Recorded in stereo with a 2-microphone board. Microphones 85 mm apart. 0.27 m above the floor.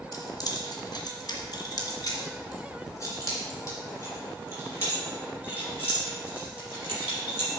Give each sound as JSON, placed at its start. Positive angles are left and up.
{"t": 0.1, "sound": "keys jangling", "side_deg": 45, "distance_m": 1.7}